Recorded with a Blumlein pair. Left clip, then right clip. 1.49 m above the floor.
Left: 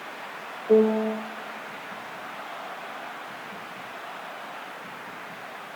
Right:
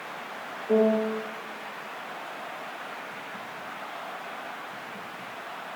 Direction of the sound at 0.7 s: 10° left.